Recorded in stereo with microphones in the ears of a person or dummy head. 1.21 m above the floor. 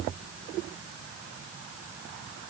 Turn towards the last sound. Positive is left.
No sound to turn to.